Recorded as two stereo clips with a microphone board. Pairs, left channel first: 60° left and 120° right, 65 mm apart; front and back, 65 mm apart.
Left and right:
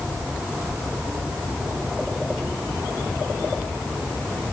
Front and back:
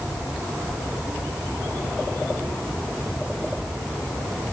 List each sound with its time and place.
Only background noise.